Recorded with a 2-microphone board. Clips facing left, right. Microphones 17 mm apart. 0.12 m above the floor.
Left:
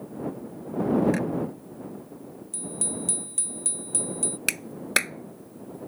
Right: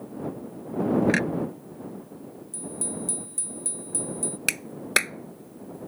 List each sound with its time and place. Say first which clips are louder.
1.1 s a clunk: right 2 dB; 45° right (ahead or behind)
2.5 s a bicycle bell: left 1 dB; 40° left (ahead or behind)
4.5 s a clap: right 1 dB; 10° right (ahead or behind)